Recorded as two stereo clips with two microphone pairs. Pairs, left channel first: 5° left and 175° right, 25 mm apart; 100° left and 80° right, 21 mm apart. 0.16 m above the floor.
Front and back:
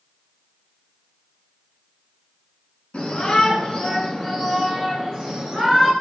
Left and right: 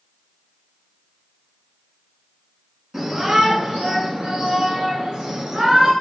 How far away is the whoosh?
I don't hear a whoosh.